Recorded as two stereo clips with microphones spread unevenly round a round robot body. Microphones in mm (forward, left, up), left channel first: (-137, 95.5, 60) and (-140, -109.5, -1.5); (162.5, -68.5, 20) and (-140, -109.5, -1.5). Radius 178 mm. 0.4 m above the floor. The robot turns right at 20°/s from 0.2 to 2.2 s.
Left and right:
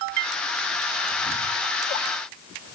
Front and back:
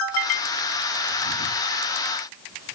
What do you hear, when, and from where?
Only background noise.